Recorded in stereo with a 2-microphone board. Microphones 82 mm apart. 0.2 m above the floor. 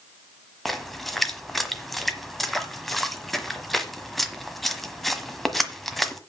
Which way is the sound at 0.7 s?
Centre (ahead or behind).